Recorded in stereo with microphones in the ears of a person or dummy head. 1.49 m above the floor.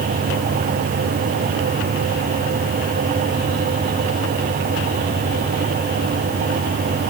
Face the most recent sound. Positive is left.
No sound to turn to.